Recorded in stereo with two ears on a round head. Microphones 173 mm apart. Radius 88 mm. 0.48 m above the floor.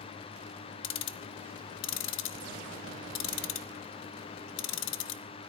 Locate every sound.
0.8 s ticking: 70° left (ahead or behind), 0.7 m